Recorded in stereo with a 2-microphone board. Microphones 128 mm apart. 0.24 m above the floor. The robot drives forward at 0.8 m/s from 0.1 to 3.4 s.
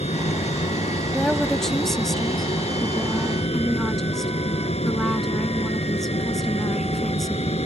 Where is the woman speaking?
5° left (ahead or behind); by 7.5 s centre (ahead or behind).